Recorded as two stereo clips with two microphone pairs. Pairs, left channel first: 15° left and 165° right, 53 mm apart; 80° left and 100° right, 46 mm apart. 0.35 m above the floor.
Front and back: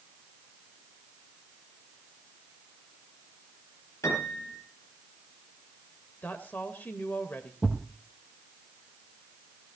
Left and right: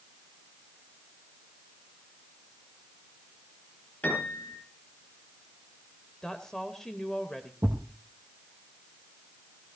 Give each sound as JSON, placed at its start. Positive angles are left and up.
{"t": 4.0, "sound": "a piano", "azimuth_deg": 25, "distance_m": 10.0}
{"t": 6.2, "sound": "a woman speaking", "azimuth_deg": 10, "distance_m": 1.5}
{"t": 7.6, "sound": "a thud", "azimuth_deg": -60, "distance_m": 3.0}